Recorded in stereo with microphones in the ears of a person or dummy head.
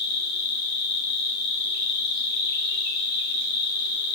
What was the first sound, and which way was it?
An insect, 55° left (ahead or behind).